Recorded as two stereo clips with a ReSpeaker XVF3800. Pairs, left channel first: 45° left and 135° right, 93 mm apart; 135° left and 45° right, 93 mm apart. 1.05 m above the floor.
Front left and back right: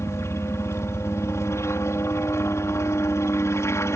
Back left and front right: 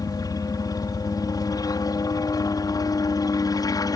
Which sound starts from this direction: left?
A helicopter, at 0.0 s.